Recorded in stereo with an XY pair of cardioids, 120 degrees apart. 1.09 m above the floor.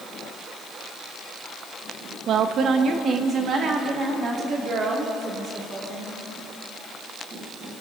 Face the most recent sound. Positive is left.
turn(degrees=-40)